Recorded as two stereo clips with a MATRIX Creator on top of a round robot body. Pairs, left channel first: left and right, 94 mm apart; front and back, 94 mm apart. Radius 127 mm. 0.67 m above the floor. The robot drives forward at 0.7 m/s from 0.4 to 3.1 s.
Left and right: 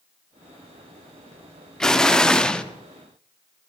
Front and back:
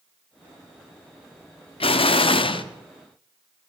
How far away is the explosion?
About 1.6 m.